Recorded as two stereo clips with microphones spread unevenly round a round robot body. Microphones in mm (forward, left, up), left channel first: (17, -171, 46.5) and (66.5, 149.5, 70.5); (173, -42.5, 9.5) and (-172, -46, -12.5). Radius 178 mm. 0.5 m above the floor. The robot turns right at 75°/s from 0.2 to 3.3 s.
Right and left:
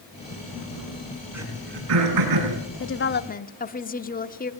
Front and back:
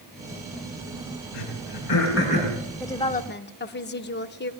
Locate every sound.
1.3 s throat clearing: 5° right, 6.5 m; by 2.5 s 85° left, 6.5 m
2.8 s a woman speaking: 90° right, 1.1 m; by 4.5 s 50° right, 1.1 m